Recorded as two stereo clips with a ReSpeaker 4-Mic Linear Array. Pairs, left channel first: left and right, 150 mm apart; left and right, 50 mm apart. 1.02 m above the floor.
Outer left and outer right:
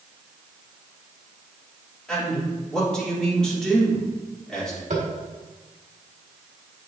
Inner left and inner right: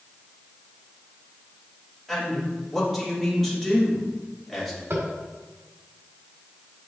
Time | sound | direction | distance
2.1 | a man speaking | 5° left (ahead or behind) | 3 m
4.9 | tapping | 65° right (ahead or behind) | 1.7 m